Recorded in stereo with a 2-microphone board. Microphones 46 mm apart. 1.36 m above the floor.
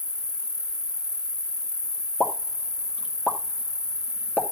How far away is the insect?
About 0.8 m.